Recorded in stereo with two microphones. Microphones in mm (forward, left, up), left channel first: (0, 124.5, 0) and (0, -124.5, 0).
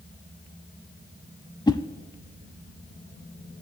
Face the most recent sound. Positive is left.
turn(degrees=15)  # may be behind; listen again after turning